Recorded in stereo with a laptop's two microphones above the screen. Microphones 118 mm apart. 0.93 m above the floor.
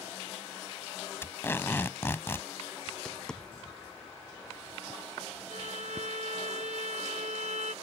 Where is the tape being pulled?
20° left (ahead or behind).